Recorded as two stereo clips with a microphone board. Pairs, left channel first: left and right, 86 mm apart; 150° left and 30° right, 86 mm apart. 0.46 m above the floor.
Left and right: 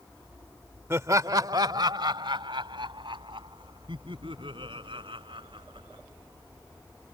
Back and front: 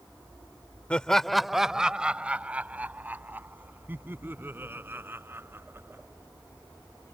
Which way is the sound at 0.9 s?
135° right.